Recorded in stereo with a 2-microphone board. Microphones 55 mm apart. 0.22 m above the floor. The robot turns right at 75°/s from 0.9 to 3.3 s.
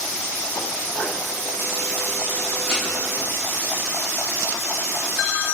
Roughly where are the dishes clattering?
Centre.